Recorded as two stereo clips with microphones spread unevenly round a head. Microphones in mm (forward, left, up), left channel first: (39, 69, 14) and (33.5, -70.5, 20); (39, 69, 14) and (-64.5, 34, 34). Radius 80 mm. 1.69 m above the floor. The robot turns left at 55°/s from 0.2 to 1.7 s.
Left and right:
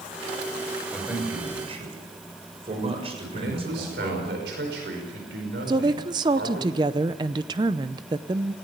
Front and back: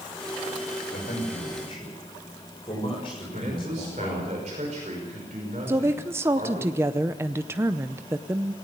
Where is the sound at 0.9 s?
Straight ahead, 7 m; by 4.3 s 45° right, 7 m.